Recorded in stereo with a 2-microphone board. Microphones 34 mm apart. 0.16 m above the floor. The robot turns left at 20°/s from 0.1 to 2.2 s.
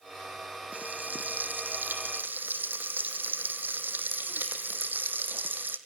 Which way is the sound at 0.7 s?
55° right (ahead or behind).